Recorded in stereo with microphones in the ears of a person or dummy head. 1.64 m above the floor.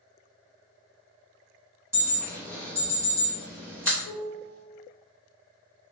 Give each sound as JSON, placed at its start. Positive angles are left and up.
{"t": 1.9, "sound": "an alarm", "side_deg": -15, "distance_m": 0.7}
{"t": 4.0, "sound": "a piano", "side_deg": 40, "distance_m": 0.8}